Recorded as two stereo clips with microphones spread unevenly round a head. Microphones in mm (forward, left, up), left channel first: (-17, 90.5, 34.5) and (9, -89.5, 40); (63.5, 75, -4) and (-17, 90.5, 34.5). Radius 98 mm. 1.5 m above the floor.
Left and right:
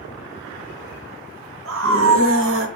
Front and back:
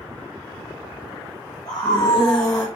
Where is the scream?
75° right, 3 m; by 2.7 s 80° right, 2.5 m.